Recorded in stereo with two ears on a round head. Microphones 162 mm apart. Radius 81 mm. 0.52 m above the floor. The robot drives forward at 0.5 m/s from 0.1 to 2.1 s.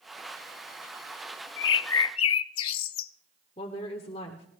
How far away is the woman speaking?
About 1.2 m.